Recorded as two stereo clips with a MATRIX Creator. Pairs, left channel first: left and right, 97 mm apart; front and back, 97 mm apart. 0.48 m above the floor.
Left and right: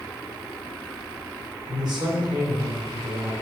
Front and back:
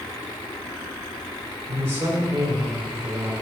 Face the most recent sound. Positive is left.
turn(degrees=-120)